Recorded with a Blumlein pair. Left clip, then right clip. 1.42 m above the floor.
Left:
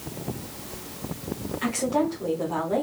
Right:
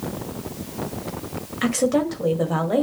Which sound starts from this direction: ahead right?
A woman speaking, at 1.6 s.